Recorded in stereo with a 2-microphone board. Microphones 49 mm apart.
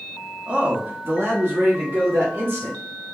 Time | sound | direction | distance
0.5 | a man speaking | 20° right (ahead or behind) | 0.9 m